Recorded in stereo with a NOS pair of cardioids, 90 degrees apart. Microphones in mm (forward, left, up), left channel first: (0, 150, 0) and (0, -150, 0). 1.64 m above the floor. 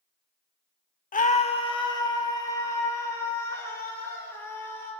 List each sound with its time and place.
1.1 s a scream: 30° left, 0.8 m; by 4.9 s 10° left, 6 m